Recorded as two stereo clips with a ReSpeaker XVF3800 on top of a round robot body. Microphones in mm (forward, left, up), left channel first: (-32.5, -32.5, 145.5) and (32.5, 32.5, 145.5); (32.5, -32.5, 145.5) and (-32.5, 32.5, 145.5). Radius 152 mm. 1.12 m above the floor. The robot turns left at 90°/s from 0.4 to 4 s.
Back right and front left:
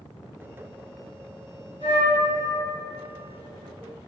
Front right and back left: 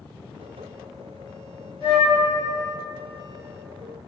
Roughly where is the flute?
Ahead left.